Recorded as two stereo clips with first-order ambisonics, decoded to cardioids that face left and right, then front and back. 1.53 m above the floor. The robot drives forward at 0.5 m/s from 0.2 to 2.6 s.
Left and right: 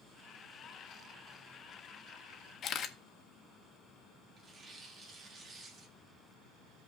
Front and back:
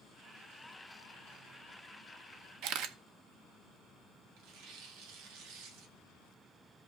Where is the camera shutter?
145° left, 0.6 m.